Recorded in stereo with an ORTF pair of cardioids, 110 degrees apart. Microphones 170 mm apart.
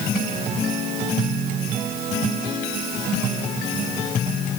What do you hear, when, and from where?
Only background noise.